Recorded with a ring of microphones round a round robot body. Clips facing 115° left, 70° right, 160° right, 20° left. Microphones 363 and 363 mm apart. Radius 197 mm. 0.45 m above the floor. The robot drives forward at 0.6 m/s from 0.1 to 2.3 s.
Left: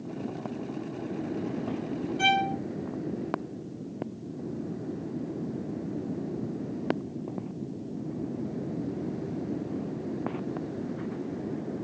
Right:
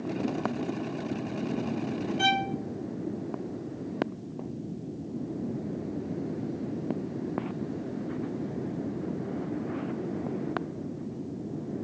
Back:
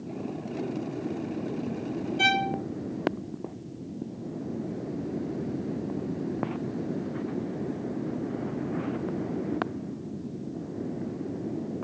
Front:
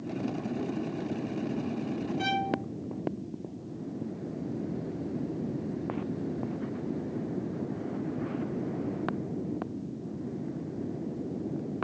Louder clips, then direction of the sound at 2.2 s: Left 1 dB, back 2 dB; 150° right.